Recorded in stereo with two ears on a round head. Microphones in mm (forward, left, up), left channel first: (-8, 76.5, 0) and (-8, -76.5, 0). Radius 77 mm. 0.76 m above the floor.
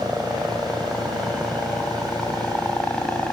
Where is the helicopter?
Centre (ahead or behind); by 3.3 s 5° left (ahead or behind).